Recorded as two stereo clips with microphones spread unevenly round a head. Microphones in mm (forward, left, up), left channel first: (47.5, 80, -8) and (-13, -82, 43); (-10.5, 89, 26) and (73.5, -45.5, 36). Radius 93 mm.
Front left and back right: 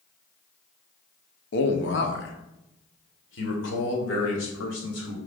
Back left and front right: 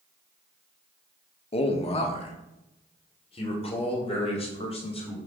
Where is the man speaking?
70° left, 1.2 m.